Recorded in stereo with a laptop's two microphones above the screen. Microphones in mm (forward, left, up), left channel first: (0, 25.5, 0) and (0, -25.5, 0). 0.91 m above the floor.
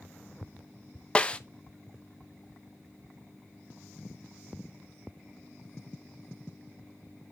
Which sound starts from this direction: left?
A snare drum, at 1.1 s.